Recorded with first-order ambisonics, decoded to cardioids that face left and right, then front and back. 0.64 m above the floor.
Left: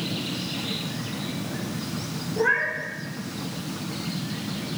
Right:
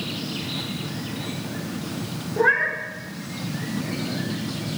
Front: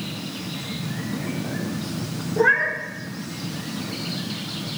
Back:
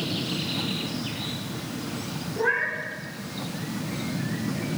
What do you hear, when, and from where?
2.4 s a cat meowing: 35° right, 0.6 m